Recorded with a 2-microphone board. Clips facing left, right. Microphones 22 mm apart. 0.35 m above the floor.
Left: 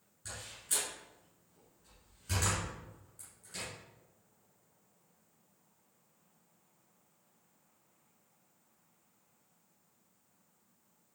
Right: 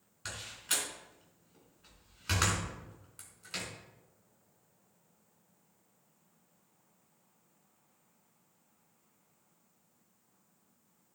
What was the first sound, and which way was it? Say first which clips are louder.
A door slam: right 5 dB; 70° right (ahead or behind).